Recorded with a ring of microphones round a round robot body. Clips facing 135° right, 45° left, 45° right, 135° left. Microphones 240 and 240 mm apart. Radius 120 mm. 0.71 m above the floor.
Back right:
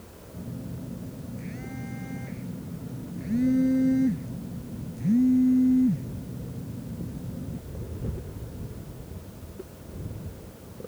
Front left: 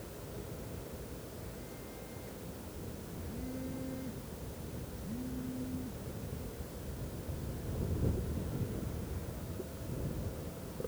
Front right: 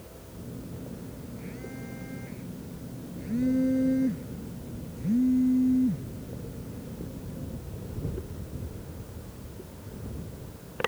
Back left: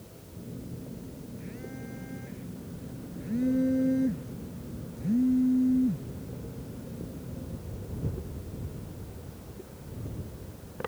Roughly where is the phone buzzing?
Behind right.